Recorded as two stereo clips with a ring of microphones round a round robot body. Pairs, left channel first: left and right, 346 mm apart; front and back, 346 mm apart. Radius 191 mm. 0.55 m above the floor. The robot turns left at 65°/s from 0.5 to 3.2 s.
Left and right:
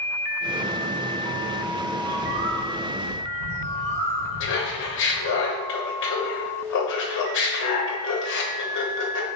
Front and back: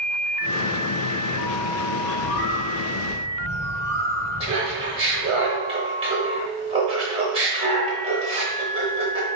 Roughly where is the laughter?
Behind left.